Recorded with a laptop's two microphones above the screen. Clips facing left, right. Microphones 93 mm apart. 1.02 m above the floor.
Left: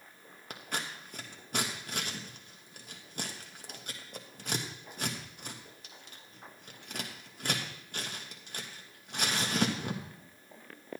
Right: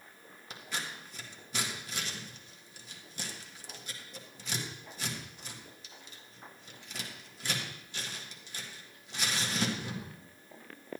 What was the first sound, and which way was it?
Scissors, 55° left (ahead or behind).